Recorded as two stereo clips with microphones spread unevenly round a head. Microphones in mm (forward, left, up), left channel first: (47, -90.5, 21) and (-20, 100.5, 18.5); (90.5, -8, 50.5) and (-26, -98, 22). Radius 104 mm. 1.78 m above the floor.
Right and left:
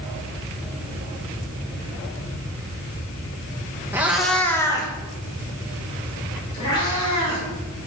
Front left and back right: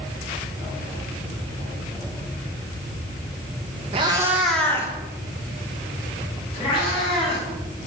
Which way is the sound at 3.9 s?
Straight behind.